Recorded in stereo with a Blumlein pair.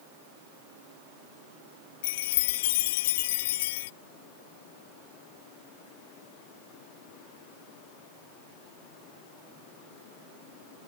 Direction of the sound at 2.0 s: 55° left.